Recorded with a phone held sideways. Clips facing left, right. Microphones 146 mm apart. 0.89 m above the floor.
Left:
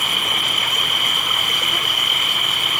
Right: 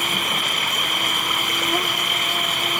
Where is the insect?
45° right (ahead or behind).